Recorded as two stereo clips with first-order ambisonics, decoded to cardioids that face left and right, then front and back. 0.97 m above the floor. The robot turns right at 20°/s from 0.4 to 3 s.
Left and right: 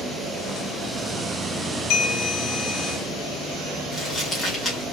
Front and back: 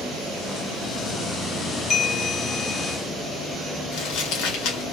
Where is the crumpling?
10° left, 2 m.